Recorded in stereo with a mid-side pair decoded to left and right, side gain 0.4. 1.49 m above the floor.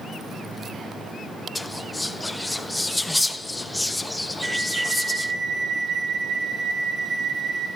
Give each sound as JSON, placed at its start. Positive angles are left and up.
{"t": 1.6, "sound": "whispering", "azimuth_deg": 10, "distance_m": 0.8}
{"t": 4.4, "sound": "a flute", "azimuth_deg": -65, "distance_m": 2.5}